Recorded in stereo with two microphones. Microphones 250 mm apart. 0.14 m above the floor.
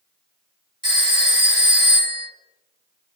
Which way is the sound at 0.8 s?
20° right (ahead or behind).